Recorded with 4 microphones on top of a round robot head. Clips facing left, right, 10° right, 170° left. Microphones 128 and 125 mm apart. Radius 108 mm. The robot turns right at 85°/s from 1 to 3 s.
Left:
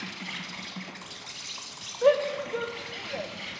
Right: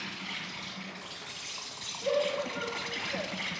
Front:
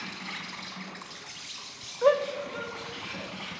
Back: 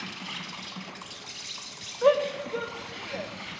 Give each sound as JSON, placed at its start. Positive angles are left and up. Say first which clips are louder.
{"t": 0.0, "sound": "an insect", "louder": "left 2 dB, back 1 dB", "azimuth_deg": 95, "distance_m": 1.2}
{"t": 2.0, "sound": "a shout", "louder": "left 7 dB, back 1 dB", "azimuth_deg": 80, "distance_m": 0.9}